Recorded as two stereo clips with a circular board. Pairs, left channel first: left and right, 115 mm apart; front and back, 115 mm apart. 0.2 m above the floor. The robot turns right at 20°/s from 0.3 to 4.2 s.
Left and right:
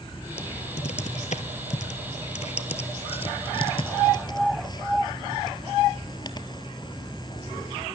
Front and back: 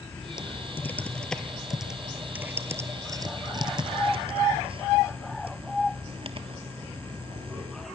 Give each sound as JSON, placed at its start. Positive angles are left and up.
{"t": 0.4, "sound": "typing on a keyboard", "azimuth_deg": 65, "distance_m": 1.1}